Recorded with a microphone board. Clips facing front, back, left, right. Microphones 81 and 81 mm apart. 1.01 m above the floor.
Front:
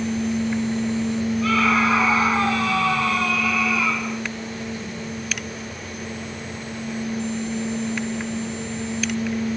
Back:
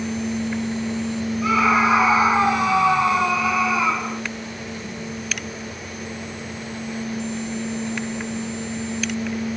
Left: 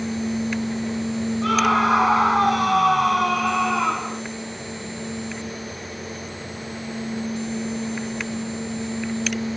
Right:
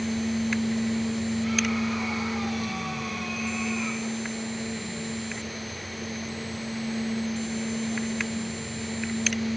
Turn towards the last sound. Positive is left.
turn(degrees=110)